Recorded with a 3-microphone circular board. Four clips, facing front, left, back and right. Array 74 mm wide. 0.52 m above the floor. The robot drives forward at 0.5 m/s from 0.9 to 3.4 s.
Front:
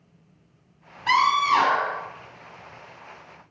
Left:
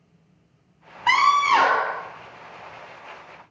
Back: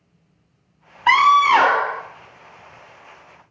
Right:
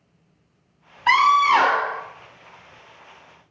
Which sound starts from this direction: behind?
A scream, at 1.1 s.